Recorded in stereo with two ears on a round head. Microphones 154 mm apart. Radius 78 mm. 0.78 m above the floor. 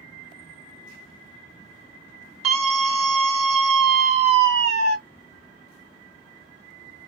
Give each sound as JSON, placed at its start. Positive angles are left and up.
{"t": 2.4, "sound": "a scream", "side_deg": -40, "distance_m": 1.1}